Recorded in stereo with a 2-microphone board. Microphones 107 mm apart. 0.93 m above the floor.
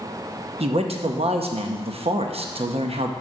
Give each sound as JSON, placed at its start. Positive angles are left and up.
{"t": 0.6, "sound": "a man speaking", "side_deg": -70, "distance_m": 0.7}